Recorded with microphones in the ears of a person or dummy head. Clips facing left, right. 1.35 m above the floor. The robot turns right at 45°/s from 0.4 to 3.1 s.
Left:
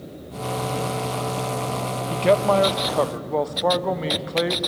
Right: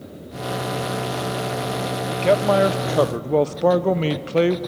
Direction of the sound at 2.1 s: 170° left.